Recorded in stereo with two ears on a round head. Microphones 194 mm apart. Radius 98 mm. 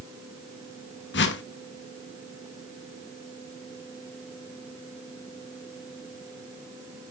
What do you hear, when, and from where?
1.1 s a whoosh: 55° left (ahead or behind), 1.1 m